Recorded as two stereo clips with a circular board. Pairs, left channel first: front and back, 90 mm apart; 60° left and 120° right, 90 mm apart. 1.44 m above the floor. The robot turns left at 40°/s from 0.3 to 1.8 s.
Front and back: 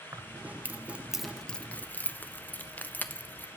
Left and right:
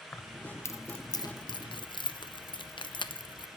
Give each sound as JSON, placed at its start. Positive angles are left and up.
{"t": 0.1, "sound": "keys jangling", "azimuth_deg": 125, "distance_m": 0.5}